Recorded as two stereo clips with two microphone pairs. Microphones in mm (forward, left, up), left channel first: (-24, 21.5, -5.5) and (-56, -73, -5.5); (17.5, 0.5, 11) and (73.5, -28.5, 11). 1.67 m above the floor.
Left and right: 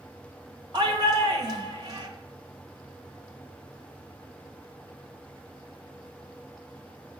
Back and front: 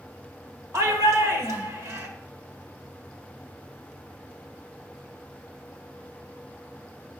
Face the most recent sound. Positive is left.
turn(degrees=-65)